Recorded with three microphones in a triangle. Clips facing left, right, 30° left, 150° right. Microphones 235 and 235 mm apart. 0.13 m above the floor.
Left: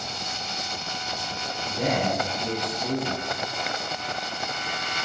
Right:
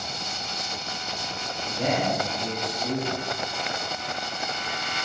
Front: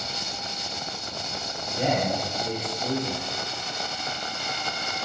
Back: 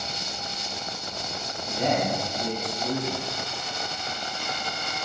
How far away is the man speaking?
About 1.9 m.